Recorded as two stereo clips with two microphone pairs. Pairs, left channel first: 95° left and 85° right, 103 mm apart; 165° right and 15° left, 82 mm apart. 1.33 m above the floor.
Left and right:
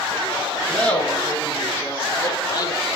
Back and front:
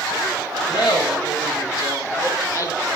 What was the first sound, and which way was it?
Laughter, 175° left.